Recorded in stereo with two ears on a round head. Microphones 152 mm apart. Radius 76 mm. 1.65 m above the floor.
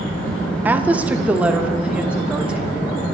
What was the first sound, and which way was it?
A woman speaking, 10° right (ahead or behind).